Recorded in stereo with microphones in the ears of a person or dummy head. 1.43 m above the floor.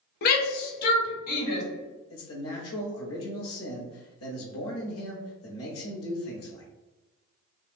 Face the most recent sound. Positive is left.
turn(degrees=70)  # may be behind; listen again after turning